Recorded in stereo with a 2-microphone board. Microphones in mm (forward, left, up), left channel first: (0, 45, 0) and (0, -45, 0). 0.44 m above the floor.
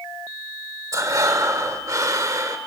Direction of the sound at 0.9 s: 40° right (ahead or behind).